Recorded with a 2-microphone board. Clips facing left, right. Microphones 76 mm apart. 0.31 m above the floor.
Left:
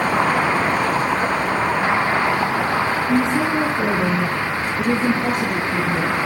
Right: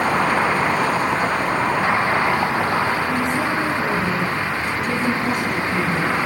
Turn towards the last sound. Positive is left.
turn(degrees=25)  # may be behind; listen again after turning